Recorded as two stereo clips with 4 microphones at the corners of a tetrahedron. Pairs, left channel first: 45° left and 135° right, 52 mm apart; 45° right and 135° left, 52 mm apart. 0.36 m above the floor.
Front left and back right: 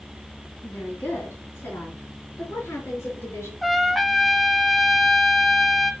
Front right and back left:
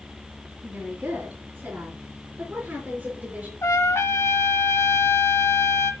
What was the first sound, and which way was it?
A woman speaking, 70° left.